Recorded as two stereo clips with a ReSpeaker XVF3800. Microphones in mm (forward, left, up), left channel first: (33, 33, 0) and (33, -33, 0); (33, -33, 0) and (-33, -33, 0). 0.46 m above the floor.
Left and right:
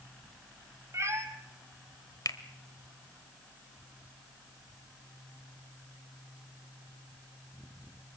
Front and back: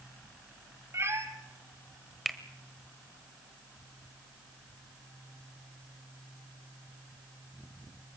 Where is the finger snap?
90° left, 1.4 m.